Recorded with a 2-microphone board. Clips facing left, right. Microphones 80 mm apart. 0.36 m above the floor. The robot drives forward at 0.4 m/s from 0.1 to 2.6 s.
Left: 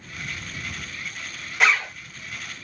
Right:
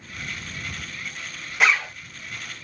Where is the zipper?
Centre (ahead or behind), 0.8 m.